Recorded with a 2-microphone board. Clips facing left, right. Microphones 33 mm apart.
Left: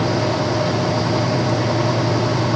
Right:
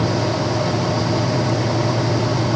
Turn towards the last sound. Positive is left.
No sound to turn to.